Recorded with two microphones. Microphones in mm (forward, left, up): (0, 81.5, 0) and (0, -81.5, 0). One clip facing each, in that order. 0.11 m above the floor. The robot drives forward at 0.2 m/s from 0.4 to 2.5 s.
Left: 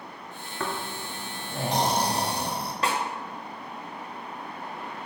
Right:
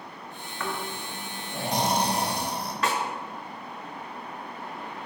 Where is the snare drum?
35° left (ahead or behind), 0.7 m.